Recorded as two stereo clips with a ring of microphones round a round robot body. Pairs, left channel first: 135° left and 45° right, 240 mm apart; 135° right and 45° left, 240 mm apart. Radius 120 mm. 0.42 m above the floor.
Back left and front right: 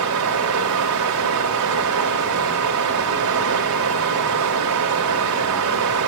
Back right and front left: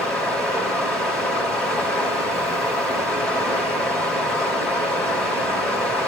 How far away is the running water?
About 3 m.